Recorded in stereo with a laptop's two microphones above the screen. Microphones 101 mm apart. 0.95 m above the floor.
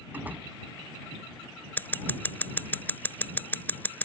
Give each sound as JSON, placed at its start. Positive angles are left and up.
{"t": 0.1, "sound": "a door slam", "side_deg": -20}
{"t": 1.8, "sound": "scissors", "side_deg": 20}